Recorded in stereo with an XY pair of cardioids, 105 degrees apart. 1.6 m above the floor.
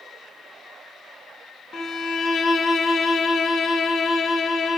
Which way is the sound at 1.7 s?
45° left.